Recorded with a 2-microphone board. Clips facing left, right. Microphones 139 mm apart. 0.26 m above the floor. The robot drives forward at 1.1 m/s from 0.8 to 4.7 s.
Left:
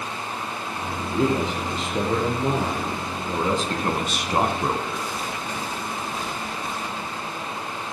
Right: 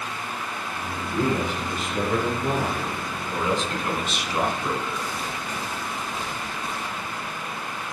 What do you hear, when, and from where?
1.1 s a man speaking: 20° left (ahead or behind), 4.5 m; by 5.1 s 60° left (ahead or behind), 1.9 m